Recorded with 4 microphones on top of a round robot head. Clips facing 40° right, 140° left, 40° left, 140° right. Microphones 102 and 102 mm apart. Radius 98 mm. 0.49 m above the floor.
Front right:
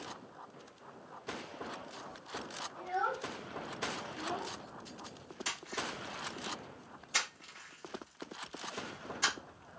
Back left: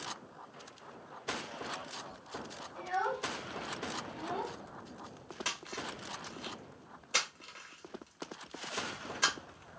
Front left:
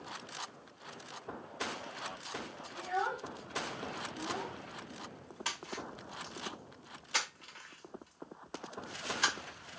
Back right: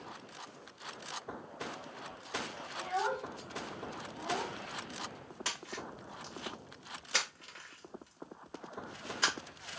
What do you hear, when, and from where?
2.8 s a child speaking: 165° left, 3 m
5.5 s a splash: 165° left, 3 m